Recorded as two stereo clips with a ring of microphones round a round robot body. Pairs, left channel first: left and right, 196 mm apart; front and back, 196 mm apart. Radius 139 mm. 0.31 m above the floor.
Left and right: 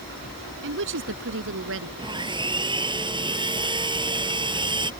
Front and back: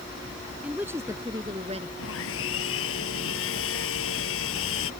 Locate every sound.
0.6 s a woman speaking: 95° right; by 1.9 s 115° right
2.0 s sawing: 25° right